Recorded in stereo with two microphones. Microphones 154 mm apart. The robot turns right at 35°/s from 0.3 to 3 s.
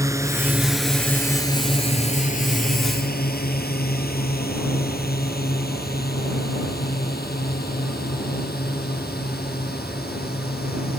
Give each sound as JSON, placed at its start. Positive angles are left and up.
{"t": 0.0, "sound": "a drone", "side_deg": -20}